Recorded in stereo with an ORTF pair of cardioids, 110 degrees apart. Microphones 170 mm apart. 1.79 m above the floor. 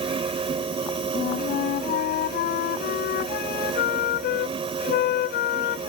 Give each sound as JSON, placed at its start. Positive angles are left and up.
{"t": 0.0, "sound": "a fan", "azimuth_deg": -35}
{"t": 1.1, "sound": "a flute", "azimuth_deg": 70}